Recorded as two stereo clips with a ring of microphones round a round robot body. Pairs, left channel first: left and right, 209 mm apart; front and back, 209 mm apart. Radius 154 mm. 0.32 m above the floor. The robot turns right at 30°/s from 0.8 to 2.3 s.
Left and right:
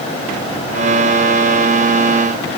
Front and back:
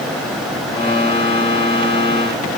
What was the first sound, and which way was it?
Only background noise.